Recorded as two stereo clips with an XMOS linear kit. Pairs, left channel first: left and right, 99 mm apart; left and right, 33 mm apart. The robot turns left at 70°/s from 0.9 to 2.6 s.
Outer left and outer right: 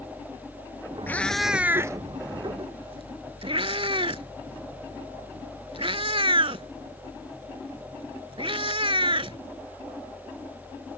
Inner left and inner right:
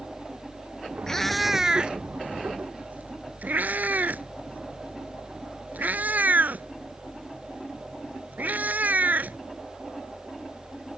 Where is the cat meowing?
20° left (ahead or behind); by 9.4 s 65° right (ahead or behind).